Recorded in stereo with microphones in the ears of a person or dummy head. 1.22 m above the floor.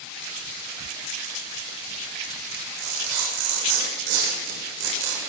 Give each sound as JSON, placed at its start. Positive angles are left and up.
{"t": 2.5, "sound": "tearing paper", "side_deg": -70, "distance_m": 6.0}